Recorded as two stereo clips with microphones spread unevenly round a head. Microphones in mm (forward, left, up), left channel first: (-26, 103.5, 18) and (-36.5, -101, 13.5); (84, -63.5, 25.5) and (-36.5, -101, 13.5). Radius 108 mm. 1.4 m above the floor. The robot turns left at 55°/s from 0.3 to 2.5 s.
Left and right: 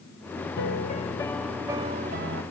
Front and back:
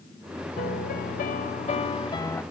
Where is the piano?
45° left, 0.6 m; by 2.4 s 55° right, 0.6 m.